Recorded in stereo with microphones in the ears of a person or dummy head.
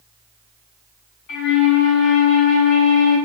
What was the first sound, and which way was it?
A flute, 35° left (ahead or behind).